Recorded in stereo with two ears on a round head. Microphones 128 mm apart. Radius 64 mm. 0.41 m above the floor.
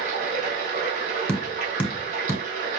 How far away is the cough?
No cough in this recording.